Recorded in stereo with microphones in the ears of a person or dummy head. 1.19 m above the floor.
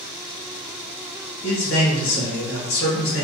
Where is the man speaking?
65° left (ahead or behind), 1.4 m.